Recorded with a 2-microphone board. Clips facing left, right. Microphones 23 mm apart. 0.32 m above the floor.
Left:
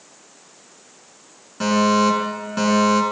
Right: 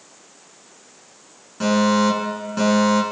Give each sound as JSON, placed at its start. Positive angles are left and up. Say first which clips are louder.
{"t": 1.6, "sound": "a fire alarm", "louder": "left 1 dB", "side_deg": 5, "distance_m": 6.5}